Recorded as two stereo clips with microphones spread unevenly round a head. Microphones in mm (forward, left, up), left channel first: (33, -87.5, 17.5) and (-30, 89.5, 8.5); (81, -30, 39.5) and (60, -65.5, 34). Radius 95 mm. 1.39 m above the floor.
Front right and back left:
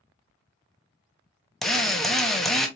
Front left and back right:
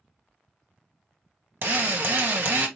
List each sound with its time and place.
1.6 s a drill: 160° right, 0.8 m